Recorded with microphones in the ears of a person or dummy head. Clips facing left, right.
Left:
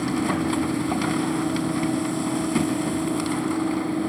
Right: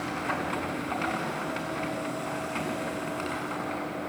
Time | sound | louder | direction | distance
0.0 | a machine running | left 9 dB | 55° left (ahead or behind) | 1.5 m